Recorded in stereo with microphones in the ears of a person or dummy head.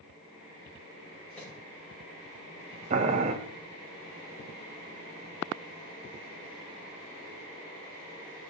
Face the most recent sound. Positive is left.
turn(degrees=-40)  # may be behind; listen again after turning